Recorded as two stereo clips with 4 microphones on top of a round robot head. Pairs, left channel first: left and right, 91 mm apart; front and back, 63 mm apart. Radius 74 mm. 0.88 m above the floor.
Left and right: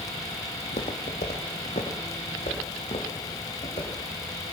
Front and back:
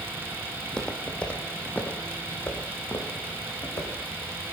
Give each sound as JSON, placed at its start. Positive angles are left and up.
{"t": 0.6, "sound": "footsteps", "azimuth_deg": 80, "distance_m": 1.8}